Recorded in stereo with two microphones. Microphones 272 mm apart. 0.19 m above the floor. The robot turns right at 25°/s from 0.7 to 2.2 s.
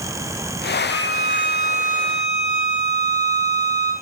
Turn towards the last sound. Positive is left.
turn(degrees=-140)